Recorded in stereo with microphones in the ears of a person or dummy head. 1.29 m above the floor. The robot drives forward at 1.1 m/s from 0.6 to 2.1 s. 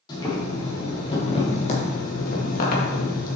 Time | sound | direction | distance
0.1 | boiling | 25° left (ahead or behind) | 3 m